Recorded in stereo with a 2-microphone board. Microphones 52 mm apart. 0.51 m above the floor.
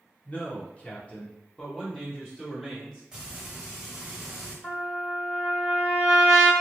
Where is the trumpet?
15° left (ahead or behind), 1.4 m.